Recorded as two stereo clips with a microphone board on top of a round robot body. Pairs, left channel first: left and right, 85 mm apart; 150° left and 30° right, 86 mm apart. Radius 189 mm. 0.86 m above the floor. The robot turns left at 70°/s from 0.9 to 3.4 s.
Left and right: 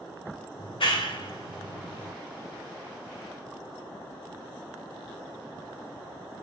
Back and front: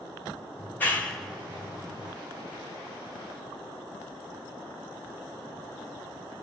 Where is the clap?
80° left, 3.5 m; by 2.1 s 5° right, 3.5 m.